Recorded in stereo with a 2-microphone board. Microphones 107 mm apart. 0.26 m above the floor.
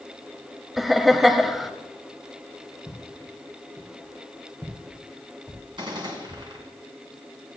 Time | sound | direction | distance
0.8 | laughter | centre (ahead or behind) | 0.9 m
2.9 | footsteps | 5° left (ahead or behind) | 4 m
5.8 | a gunshot | 50° right (ahead or behind) | 2 m